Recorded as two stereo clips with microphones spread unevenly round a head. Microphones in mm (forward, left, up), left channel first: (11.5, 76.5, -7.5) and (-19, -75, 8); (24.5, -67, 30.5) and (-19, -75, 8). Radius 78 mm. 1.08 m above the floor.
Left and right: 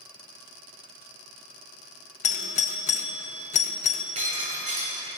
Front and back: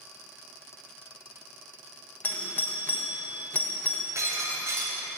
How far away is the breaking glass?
About 5.5 m.